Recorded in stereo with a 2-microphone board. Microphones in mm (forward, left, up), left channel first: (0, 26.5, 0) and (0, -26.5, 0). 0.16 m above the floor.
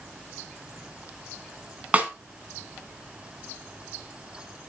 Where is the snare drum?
25° right (ahead or behind), 1.8 m.